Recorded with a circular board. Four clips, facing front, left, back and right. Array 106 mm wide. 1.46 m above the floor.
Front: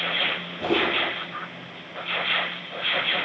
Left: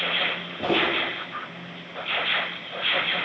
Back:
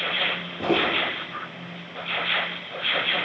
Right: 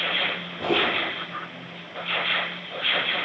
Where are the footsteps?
155° left, 1.6 m.